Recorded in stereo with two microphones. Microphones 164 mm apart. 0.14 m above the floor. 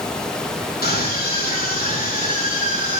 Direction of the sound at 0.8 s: 70° left (ahead or behind).